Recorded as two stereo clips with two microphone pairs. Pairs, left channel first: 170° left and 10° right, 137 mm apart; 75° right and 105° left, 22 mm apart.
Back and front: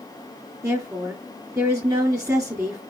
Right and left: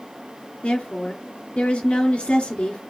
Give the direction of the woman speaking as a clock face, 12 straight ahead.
3 o'clock.